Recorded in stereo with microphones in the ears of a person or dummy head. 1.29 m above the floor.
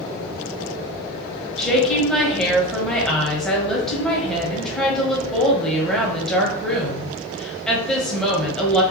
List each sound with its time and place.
1.6 s a woman speaking: 5° left (ahead or behind), 1.3 m